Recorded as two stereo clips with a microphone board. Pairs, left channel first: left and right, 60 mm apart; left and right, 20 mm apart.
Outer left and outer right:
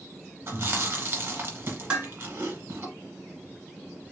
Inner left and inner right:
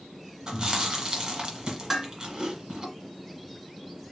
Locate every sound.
0.5 s chewing: 40° right (ahead or behind), 1.2 m
1.9 s dishes clattering: 15° right (ahead or behind), 1.7 m